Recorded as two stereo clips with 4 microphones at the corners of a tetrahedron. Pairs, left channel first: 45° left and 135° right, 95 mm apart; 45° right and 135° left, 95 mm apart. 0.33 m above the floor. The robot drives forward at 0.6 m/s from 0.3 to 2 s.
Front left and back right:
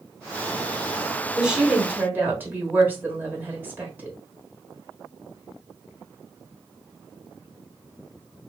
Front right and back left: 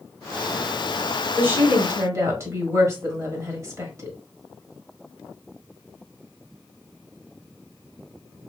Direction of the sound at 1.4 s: 150° left.